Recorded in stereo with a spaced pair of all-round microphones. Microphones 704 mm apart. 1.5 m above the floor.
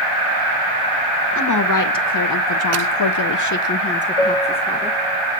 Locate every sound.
1.3 s a woman speaking: 25° left (ahead or behind), 1.1 m; by 5.0 s 5° left (ahead or behind), 1.1 m
4.2 s a piano: 55° left (ahead or behind), 1.4 m